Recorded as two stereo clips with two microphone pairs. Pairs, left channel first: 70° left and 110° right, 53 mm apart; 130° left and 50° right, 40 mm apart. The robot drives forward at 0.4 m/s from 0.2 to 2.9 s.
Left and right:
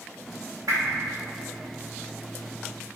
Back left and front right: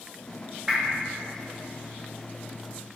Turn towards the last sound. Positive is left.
turn(degrees=-135)